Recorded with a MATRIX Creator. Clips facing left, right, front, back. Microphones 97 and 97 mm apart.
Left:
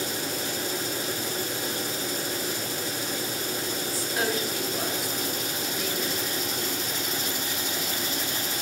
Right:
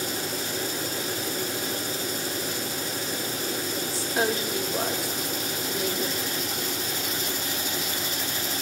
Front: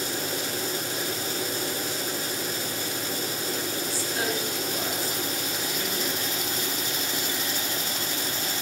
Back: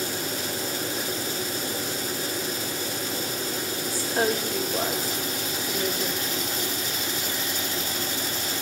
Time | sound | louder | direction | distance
3.9 | a woman speaking | right 3 dB, back 7 dB | 145° right | 2.0 m